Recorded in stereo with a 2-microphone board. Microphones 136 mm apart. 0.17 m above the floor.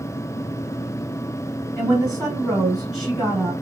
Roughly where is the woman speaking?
Centre.